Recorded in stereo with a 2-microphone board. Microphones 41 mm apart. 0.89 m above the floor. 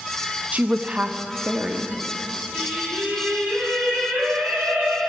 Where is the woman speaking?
40° right (ahead or behind), 0.5 m; by 2.0 s 35° right (ahead or behind), 1.3 m.